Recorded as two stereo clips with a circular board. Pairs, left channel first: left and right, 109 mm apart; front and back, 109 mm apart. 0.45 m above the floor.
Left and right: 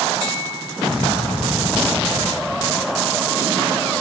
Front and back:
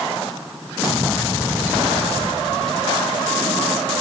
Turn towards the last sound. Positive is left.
No sound to turn to.